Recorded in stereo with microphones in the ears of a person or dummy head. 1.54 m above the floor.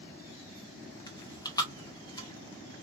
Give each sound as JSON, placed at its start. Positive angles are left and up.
{"t": 1.1, "sound": "chewing", "side_deg": 25, "distance_m": 0.8}